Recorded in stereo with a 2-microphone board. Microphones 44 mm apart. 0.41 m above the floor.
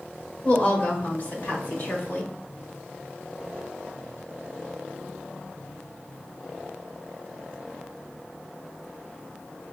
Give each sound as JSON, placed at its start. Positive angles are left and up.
{"t": 0.4, "sound": "a woman speaking", "side_deg": 30, "distance_m": 1.4}